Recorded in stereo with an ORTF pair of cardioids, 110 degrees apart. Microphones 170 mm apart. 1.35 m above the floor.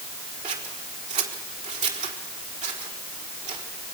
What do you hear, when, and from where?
0.4 s scissors: 45° right, 4 m